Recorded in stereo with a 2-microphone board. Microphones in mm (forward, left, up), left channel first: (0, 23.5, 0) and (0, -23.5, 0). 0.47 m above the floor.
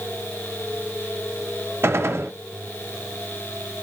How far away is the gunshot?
About 0.6 m.